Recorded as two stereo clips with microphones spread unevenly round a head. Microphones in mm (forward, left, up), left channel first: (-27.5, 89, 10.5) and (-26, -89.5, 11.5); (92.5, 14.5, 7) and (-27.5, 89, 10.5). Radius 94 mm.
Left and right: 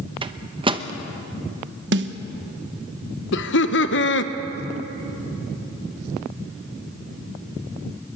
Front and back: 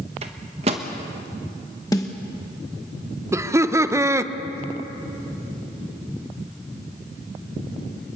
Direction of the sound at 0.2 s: 155° right.